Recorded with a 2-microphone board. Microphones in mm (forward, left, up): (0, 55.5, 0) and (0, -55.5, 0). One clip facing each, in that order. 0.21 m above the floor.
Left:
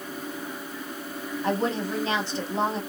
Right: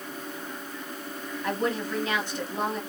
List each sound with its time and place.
1.4 s a woman speaking: 30° left (ahead or behind), 1.2 m